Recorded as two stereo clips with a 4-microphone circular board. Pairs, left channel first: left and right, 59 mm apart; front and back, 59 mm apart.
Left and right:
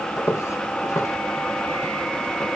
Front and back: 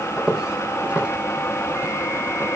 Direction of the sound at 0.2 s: 105° left.